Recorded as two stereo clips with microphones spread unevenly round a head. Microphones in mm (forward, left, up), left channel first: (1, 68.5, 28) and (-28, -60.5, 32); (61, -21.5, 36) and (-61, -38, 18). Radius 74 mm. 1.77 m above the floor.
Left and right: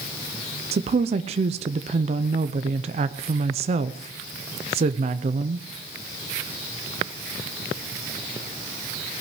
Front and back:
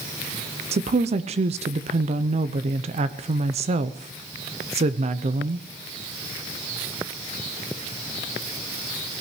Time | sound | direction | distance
0.7 | a woman speaking | 135° right | 0.6 m